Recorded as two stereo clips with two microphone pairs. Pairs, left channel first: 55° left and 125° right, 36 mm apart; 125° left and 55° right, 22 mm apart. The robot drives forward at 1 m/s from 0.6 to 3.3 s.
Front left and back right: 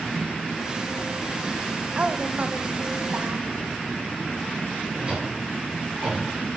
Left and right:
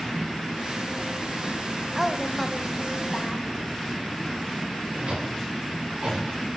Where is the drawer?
65° right, 6.5 m.